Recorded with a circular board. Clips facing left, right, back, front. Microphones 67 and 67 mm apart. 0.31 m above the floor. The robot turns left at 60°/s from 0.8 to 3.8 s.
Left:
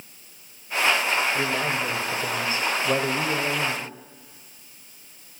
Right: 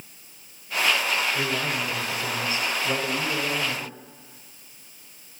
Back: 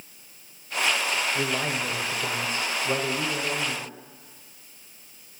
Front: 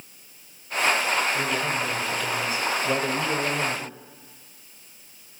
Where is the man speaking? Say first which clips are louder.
Left 2 dB, front 2 dB; 145° left, 1.1 m; by 3.9 s straight ahead, 1.1 m.